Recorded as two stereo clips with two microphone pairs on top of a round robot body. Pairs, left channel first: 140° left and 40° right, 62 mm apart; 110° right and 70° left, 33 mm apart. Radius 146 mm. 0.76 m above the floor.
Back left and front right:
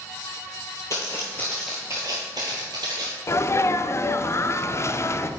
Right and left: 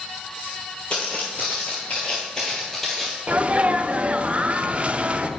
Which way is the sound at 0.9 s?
Straight behind.